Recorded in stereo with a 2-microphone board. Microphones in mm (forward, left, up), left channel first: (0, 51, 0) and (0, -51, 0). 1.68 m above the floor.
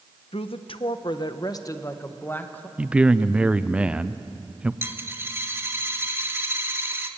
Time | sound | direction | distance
0.3 | a woman speaking | 65° left (ahead or behind) | 1.1 m
2.8 | a man speaking | 10° right (ahead or behind) | 0.6 m
4.8 | a dropped coin | 20° right (ahead or behind) | 1.3 m